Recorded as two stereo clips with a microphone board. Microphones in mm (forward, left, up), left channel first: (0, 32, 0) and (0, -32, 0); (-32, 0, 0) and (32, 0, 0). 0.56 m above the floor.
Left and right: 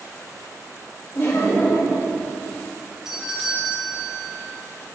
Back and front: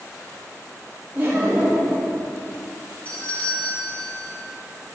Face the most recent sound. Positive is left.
turn(degrees=-160)